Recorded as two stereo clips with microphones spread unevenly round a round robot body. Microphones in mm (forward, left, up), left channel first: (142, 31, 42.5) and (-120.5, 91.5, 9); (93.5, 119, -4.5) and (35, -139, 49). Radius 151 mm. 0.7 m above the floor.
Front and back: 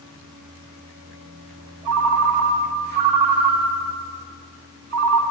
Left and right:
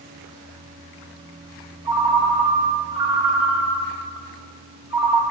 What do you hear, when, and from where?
1.9 s a ringtone: 175° right, 1.4 m